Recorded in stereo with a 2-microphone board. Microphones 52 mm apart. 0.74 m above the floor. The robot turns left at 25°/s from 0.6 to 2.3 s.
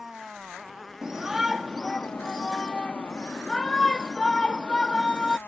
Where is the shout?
160° right; by 5.4 s 165° left.